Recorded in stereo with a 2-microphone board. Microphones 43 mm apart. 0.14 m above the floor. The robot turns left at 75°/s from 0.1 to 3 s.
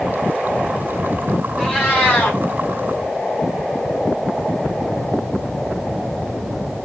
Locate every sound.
1.6 s a cat meowing: 175° left, 3.5 m; by 2.4 s 115° left, 3.5 m